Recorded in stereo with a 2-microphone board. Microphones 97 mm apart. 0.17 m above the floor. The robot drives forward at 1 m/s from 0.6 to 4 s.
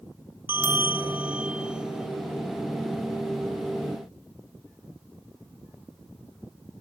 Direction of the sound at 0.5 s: 20° right (ahead or behind).